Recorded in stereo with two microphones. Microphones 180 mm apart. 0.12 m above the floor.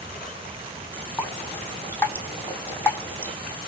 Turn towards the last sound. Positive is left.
turn(degrees=10)  # may be behind; listen again after turning